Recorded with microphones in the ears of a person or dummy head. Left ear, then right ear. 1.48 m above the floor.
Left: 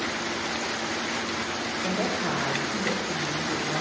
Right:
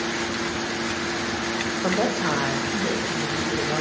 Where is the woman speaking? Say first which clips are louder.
Right 5 dB; 80° right, 0.6 m.